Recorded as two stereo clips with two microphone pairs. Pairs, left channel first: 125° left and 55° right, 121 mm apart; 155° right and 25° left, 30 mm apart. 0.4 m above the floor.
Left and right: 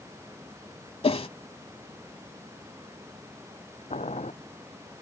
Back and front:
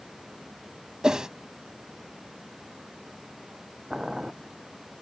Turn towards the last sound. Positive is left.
turn(degrees=100)